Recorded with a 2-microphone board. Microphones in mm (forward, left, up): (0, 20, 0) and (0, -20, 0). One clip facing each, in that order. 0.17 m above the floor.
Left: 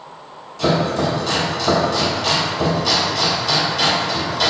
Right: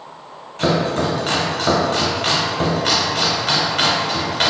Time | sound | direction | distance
0.6 | chopping | 45° right (ahead or behind) | 0.7 m